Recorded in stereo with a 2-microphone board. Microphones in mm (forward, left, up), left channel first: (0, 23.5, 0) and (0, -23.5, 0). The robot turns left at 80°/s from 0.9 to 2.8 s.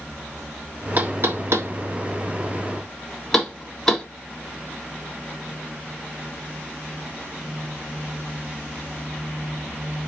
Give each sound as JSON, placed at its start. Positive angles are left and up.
{"t": 1.0, "sound": "knocking", "side_deg": -40, "distance_m": 1.4}